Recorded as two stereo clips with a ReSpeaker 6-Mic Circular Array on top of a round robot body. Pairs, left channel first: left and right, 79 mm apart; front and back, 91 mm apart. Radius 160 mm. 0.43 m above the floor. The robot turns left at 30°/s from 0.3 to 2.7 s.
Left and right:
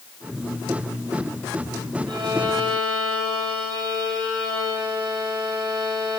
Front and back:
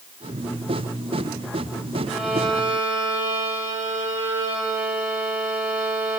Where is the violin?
90° right, 3.5 m; by 6.2 s 110° right, 3.5 m.